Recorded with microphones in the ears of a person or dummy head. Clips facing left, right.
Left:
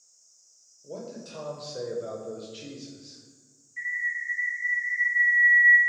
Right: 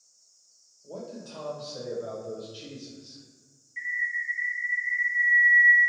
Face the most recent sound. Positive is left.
turn(degrees=-20)  # may be behind; listen again after turning